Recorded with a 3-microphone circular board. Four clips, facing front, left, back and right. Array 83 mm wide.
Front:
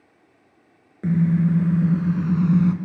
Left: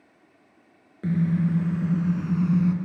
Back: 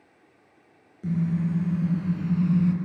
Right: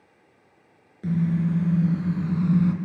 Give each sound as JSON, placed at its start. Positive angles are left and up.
{"t": 1.0, "sound": "a car horn", "azimuth_deg": 15, "distance_m": 3.0}